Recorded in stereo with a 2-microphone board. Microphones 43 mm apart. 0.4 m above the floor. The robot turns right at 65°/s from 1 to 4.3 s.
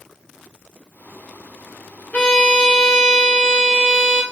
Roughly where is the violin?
Ahead left.